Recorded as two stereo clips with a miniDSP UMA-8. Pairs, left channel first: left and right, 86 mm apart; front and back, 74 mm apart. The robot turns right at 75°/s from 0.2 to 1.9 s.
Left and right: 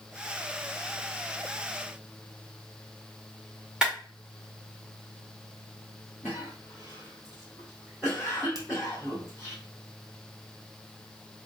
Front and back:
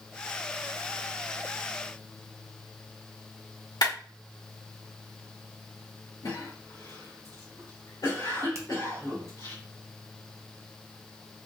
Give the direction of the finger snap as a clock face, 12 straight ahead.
4 o'clock.